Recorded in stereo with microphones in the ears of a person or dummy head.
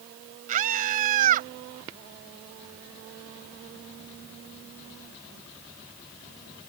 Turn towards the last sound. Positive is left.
turn(degrees=-45)  # may be behind; listen again after turning